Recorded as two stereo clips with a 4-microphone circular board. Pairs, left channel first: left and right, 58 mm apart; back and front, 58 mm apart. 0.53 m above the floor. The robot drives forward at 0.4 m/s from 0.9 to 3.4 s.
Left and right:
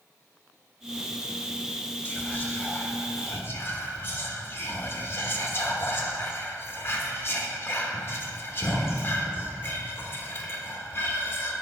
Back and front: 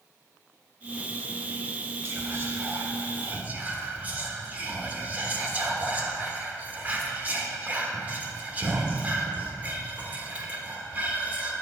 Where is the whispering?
35° left, 1.6 m; by 11.5 s 55° left, 1.3 m.